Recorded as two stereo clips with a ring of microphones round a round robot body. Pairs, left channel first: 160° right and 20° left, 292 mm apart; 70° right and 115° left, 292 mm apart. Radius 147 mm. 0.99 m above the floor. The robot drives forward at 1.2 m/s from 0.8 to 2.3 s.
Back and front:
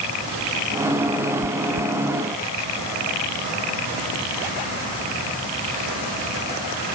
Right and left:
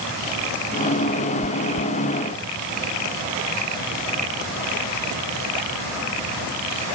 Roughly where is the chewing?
Ahead.